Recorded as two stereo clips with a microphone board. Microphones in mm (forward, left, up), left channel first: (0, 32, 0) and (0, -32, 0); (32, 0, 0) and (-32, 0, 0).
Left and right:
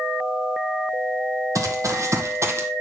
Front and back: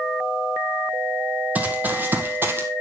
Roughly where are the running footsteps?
Behind right.